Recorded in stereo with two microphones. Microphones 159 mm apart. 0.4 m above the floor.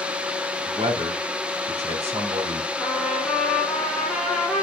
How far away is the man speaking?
About 3 m.